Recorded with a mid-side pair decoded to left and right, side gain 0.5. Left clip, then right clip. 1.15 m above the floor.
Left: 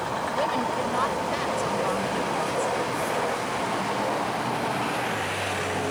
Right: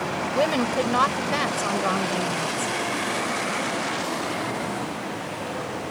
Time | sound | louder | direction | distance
0.3 | a woman speaking | right 5 dB | 45° right | ?